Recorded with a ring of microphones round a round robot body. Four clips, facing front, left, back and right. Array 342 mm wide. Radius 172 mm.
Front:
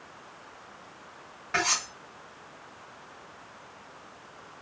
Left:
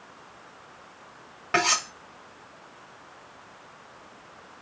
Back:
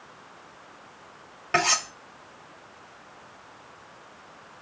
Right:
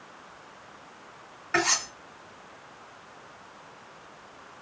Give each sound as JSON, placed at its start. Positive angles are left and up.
{"t": 1.5, "sound": "cutlery clinking", "azimuth_deg": 125, "distance_m": 2.5}